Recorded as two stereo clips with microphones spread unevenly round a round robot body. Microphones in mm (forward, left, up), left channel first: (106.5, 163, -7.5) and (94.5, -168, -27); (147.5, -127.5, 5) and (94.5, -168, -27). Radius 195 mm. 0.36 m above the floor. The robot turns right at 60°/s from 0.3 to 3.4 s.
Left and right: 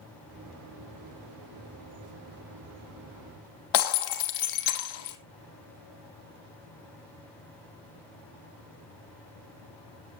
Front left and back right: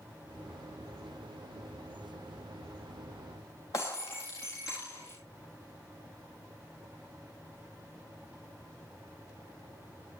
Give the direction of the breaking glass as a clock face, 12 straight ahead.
9 o'clock.